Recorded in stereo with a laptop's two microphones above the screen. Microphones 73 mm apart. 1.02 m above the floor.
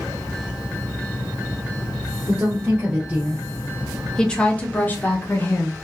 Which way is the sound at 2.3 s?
25° right (ahead or behind).